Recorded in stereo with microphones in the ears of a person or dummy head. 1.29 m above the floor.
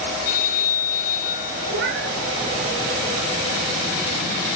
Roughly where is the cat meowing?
Right.